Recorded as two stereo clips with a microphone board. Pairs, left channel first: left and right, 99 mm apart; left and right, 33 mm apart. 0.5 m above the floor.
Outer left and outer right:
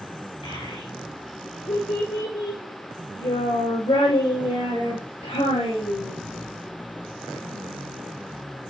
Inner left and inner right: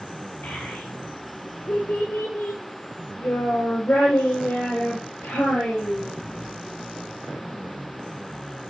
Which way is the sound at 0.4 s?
80° left.